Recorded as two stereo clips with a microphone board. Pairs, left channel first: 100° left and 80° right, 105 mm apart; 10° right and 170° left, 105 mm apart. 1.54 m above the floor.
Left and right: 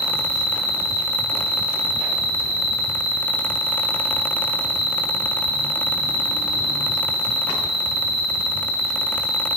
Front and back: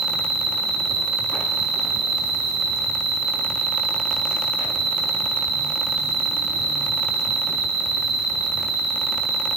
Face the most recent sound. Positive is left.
turn(degrees=-110)